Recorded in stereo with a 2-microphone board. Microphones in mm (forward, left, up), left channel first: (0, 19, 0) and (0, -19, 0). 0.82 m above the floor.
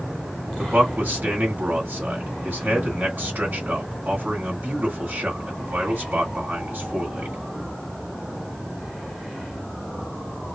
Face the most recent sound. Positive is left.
turn(degrees=-55)  # may be behind; listen again after turning